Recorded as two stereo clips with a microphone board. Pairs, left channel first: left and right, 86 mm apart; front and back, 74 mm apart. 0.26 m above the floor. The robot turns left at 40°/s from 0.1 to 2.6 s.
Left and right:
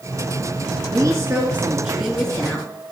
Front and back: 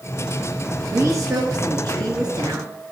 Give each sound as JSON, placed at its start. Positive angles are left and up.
{"t": 0.9, "sound": "a woman speaking", "azimuth_deg": -130, "distance_m": 3.0}